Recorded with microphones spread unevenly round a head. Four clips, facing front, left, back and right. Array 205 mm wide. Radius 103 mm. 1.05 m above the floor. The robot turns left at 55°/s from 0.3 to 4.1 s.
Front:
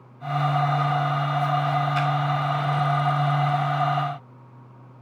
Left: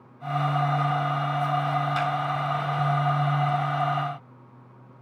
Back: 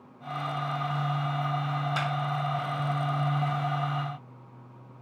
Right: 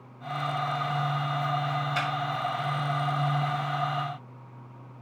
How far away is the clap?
About 3.5 m.